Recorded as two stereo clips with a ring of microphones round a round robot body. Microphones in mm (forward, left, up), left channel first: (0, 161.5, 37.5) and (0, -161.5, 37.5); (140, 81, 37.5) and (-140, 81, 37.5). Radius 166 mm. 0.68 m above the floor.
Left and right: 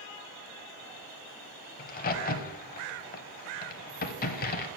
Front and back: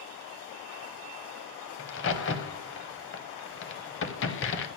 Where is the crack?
30° left, 0.7 m.